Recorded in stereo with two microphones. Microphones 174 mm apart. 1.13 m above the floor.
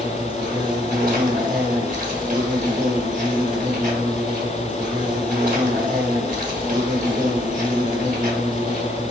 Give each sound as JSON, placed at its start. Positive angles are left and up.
{"t": 0.0, "sound": "an insect", "side_deg": -50, "distance_m": 1.2}